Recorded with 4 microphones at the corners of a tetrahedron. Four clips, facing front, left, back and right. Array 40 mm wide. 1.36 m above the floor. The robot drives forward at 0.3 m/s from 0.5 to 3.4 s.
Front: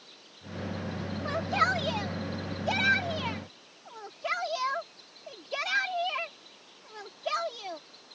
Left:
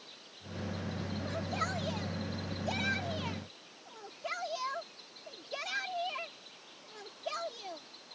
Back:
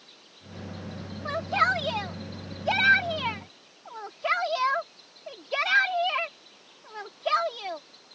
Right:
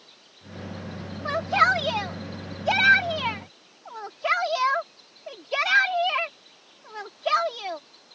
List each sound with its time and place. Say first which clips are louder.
1.2 s a shout: right 17 dB, back 3 dB; 100° right; by 7.8 s 115° right